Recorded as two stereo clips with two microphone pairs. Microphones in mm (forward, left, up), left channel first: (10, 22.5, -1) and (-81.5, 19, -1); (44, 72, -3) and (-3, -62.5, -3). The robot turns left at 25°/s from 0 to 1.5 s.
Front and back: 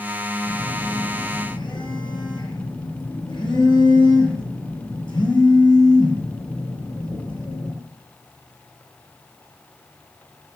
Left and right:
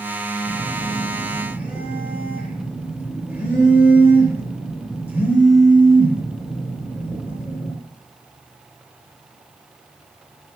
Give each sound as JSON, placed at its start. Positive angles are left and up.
{"t": 0.5, "sound": "a phone buzzing", "azimuth_deg": -5, "distance_m": 8.0}